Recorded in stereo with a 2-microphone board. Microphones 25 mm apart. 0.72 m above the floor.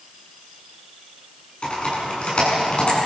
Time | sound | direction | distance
1.6 | typing on a keyboard | 40° left (ahead or behind) | 8.5 m